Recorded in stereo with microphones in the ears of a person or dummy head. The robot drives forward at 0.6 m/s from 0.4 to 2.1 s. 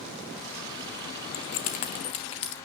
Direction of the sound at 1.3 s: 45° left (ahead or behind).